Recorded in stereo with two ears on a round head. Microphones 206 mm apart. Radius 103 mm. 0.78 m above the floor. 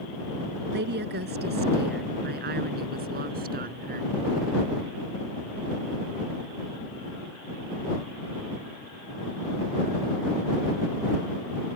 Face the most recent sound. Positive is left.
turn(degrees=-40)  # may be behind; listen again after turning